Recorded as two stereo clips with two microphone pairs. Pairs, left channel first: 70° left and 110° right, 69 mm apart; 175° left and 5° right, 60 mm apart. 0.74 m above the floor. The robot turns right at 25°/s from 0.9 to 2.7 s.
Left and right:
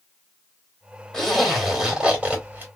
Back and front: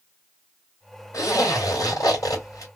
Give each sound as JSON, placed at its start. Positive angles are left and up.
{"t": 1.1, "sound": "a zipper", "azimuth_deg": 155, "distance_m": 2.5}